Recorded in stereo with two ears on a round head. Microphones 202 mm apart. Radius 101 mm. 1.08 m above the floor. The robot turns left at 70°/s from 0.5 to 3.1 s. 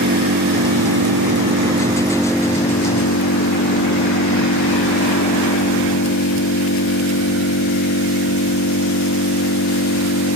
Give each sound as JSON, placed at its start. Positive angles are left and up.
{"t": 0.0, "sound": "an engine running", "azimuth_deg": -55}